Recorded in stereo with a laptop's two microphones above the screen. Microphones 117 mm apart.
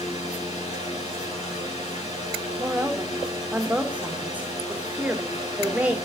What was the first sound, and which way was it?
A fan, 80° left.